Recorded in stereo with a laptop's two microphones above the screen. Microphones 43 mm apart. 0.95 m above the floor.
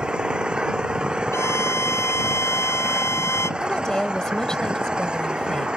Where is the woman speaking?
15° left (ahead or behind).